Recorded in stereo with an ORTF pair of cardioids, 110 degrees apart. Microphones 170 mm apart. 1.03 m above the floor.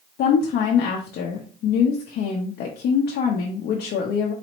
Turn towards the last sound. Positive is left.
turn(degrees=70)